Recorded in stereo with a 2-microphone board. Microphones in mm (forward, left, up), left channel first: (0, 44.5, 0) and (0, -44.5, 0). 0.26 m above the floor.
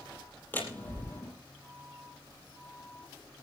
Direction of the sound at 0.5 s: 20° left (ahead or behind).